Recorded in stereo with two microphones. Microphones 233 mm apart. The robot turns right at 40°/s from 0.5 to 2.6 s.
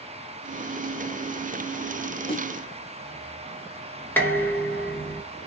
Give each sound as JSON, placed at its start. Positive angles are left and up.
{"t": 2.3, "sound": "a snare drum", "side_deg": 25, "distance_m": 1.3}
{"t": 4.2, "sound": "dishes clattering", "side_deg": 10, "distance_m": 1.4}